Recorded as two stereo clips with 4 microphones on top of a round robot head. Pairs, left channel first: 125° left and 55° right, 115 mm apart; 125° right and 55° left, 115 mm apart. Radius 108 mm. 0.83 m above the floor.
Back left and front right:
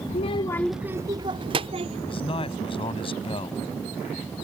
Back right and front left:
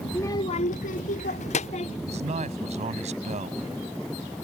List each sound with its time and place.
0.1 s a child speaking: 155° left; by 2.0 s 95° right
2.1 s a man speaking: 80° left